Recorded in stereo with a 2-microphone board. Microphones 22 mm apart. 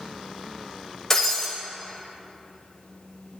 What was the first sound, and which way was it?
Breaking glass, 20° left (ahead or behind).